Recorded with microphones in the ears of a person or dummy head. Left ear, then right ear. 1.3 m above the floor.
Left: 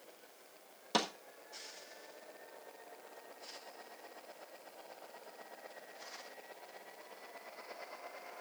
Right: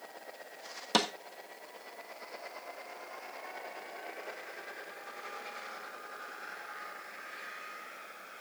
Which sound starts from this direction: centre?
A snare drum, at 0.9 s.